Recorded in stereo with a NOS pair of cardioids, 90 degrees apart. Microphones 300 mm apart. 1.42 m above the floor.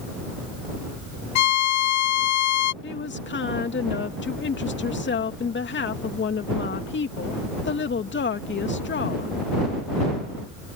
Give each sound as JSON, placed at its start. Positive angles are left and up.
{"t": 1.4, "sound": "a violin", "azimuth_deg": 70}
{"t": 2.8, "sound": "a woman speaking", "azimuth_deg": 40}